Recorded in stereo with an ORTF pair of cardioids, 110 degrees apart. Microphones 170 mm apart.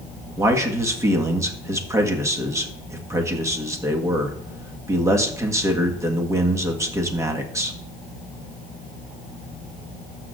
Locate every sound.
0.4 s a man speaking: 20° right, 1.6 m